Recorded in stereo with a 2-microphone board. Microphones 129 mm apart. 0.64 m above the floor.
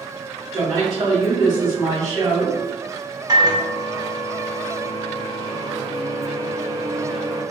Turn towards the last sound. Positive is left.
turn(degrees=-30)  # may be behind; listen again after turning